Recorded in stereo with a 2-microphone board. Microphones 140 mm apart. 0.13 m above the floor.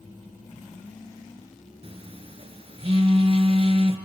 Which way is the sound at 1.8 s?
45° right (ahead or behind).